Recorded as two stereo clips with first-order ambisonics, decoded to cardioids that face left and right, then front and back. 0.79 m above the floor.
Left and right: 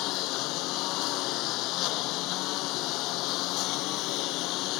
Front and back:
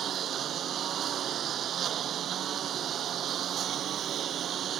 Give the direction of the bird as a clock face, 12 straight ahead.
I don't hear a bird.